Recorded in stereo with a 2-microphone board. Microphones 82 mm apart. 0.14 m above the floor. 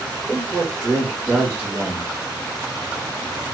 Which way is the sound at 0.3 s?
10° right (ahead or behind).